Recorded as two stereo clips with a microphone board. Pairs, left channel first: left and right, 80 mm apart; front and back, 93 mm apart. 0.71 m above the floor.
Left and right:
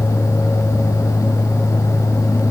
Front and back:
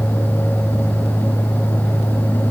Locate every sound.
Only background noise.